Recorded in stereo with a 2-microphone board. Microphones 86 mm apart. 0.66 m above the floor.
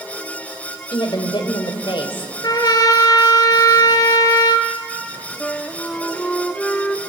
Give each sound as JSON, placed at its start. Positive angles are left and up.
{"t": 0.9, "sound": "a woman speaking", "side_deg": 65, "distance_m": 2.5}
{"t": 2.4, "sound": "a trumpet", "side_deg": 50, "distance_m": 1.8}
{"t": 5.4, "sound": "a flute", "side_deg": 15, "distance_m": 0.9}